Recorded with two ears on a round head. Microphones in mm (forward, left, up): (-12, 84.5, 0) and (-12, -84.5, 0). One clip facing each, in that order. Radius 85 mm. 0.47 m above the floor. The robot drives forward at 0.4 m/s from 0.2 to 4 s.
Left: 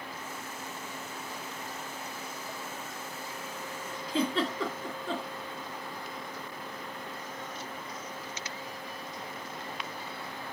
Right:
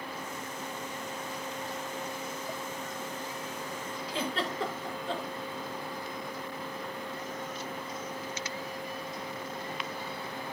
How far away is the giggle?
About 3 m.